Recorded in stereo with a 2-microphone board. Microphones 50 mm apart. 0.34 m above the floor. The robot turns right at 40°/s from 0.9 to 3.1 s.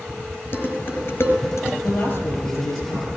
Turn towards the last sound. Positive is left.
turn(degrees=85)